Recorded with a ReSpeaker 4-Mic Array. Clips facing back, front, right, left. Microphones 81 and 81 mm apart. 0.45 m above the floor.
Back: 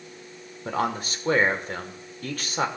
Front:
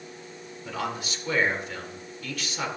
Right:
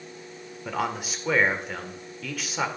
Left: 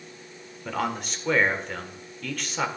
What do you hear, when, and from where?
0.7 s a man speaking: 175° right, 1.4 m